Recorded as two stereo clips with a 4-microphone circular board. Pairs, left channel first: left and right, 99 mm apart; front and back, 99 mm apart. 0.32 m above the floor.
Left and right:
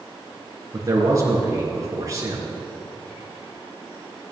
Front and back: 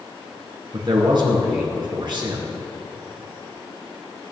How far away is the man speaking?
About 3.5 m.